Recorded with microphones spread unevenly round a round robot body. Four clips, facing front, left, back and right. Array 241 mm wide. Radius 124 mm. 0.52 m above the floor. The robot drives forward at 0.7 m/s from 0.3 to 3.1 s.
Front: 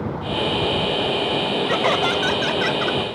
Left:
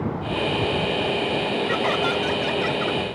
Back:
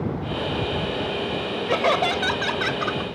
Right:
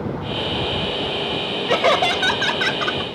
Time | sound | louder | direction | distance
1.7 | laughter | right 9 dB, back 2 dB | 70° right | ?